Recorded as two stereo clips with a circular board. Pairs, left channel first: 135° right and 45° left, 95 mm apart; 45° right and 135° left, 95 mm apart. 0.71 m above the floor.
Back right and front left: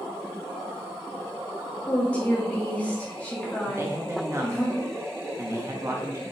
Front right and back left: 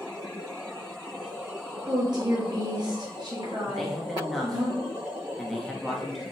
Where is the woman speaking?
155° left, 1.3 m.